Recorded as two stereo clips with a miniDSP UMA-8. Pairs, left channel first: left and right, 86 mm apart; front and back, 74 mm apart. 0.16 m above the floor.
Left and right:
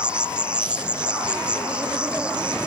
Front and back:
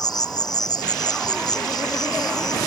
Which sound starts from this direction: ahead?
An insect, at 0.0 s.